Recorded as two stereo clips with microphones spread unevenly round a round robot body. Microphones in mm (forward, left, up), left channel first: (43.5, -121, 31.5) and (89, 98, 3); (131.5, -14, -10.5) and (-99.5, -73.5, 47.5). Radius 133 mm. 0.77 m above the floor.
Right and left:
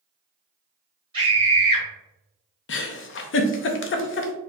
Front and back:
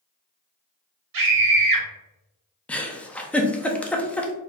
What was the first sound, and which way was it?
A scream, 145° left.